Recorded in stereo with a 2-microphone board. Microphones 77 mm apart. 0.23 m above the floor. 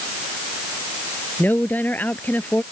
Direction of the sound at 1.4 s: 20° left (ahead or behind).